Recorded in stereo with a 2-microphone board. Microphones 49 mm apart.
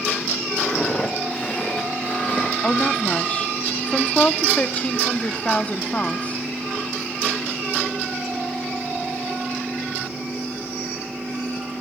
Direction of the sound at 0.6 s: 20° left (ahead or behind).